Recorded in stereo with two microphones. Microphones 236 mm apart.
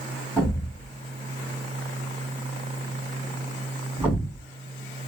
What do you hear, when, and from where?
0.4 s a thud: 5° right (ahead or behind), 3 m